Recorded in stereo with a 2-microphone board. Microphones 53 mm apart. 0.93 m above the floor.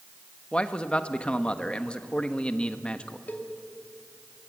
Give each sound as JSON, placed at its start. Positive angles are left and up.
{"t": 0.5, "sound": "a man speaking", "side_deg": 20, "distance_m": 1.2}
{"t": 3.3, "sound": "a cowbell", "side_deg": 30, "distance_m": 2.0}